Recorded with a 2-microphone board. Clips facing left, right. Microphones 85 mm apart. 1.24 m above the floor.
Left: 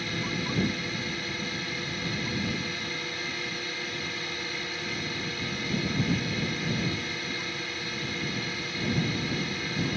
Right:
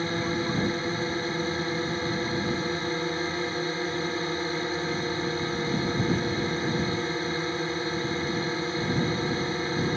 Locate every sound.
0.0 s a drone: 30° right (ahead or behind)